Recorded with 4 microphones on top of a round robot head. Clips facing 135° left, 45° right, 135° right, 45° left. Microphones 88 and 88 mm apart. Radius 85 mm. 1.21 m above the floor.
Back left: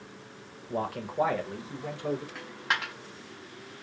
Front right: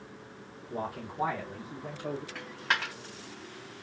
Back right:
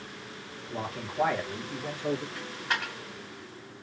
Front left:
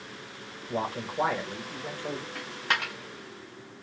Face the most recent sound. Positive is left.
turn(degrees=50)